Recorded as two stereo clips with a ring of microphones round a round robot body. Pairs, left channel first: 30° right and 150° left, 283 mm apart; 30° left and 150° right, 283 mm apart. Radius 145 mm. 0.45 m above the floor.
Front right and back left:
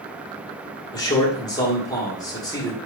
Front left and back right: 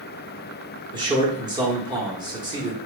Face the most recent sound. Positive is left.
turn(degrees=-90)